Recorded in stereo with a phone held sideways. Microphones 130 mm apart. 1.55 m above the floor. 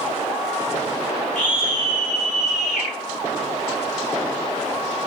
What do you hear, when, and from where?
1.4 s a scream: 75° left (ahead or behind), 5 m